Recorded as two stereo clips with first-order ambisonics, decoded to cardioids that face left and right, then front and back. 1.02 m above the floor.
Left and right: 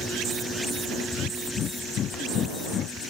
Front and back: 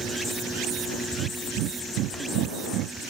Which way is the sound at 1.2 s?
145° left.